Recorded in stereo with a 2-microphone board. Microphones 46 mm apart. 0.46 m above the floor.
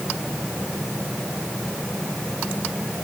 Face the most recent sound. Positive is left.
No sound to turn to.